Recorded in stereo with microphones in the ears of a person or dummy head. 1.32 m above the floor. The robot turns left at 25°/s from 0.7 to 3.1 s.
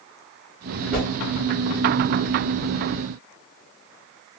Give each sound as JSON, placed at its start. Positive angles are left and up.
{"t": 0.9, "sound": "a whoosh", "side_deg": -5, "distance_m": 1.4}